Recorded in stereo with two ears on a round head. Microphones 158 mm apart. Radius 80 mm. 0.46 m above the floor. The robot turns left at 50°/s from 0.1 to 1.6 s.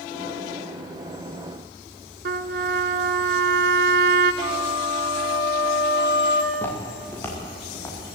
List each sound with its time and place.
2.2 s a trumpet: 60° right (ahead or behind), 1.0 m
4.4 s a flute: 80° left, 3 m
6.5 s footsteps: 10° left (ahead or behind), 7.5 m; by 8.0 s 15° left (ahead or behind), 8.5 m